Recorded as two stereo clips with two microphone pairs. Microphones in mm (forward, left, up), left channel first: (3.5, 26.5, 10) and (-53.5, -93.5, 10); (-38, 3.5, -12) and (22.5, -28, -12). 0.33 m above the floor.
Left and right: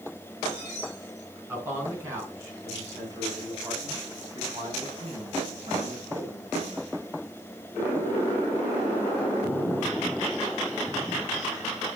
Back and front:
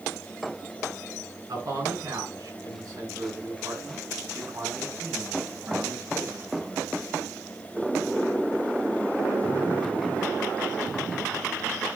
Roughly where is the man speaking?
Ahead right.